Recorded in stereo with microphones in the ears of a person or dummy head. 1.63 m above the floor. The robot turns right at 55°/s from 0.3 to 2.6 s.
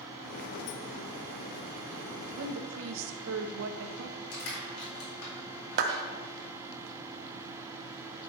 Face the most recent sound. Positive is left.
turn(degrees=-50)  # may be behind; listen again after turning